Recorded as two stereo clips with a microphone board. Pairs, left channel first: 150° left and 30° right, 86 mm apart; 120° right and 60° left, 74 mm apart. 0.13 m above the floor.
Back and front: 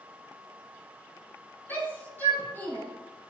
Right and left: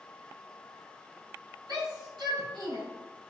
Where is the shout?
85° left, 3.5 m.